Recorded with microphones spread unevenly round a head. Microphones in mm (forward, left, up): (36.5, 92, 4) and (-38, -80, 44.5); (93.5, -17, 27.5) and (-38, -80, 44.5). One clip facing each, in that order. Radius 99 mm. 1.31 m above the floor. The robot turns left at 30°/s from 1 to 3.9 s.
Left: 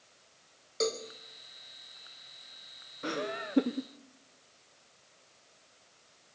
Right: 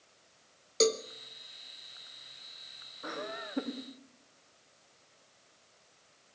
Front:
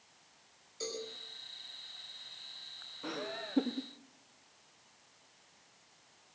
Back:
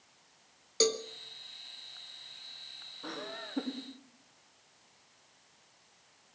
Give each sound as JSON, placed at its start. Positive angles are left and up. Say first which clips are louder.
{"t": 0.8, "sound": "a cowbell", "louder": "right 5 dB, back 11 dB", "azimuth_deg": -160, "distance_m": 0.9}
{"t": 3.0, "sound": "laughter", "louder": "left 5 dB, front 2 dB", "azimuth_deg": 105, "distance_m": 0.9}